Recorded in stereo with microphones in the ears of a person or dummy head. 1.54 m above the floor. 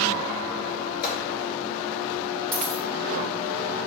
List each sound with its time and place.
1.0 s a gunshot: 55° left (ahead or behind), 3.5 m
2.5 s a dropped coin: 10° left (ahead or behind), 1.2 m